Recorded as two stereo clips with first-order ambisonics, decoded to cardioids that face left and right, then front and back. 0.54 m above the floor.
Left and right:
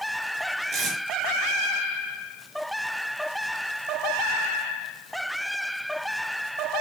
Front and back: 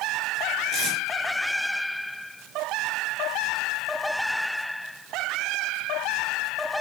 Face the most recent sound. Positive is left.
turn(degrees=-135)